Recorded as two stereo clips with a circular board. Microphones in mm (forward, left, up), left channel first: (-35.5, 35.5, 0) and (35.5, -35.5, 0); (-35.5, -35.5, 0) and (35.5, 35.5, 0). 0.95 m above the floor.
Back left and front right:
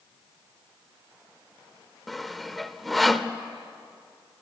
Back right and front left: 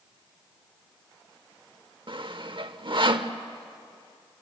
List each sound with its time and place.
2.1 s sawing: 45° left, 0.9 m